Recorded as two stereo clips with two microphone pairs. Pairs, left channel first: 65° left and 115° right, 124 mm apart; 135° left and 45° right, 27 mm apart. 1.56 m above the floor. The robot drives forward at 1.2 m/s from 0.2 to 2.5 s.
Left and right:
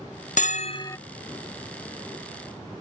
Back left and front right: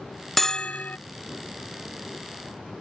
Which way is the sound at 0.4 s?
55° left.